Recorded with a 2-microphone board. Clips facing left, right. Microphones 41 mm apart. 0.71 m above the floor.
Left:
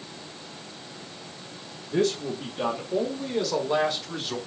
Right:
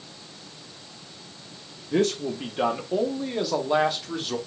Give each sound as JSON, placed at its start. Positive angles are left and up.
{"t": 1.9, "sound": "a man speaking", "side_deg": -55, "distance_m": 1.0}